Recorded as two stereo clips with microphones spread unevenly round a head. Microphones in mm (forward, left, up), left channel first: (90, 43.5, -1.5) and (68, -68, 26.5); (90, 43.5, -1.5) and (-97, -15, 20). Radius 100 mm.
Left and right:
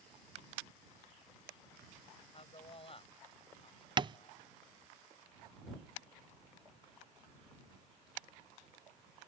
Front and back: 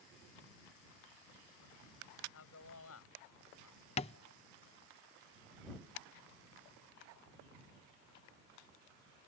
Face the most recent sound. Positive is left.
turn(degrees=-45)